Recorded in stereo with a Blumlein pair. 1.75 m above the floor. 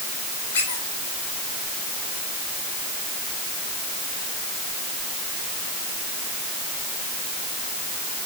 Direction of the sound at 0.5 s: 60° left.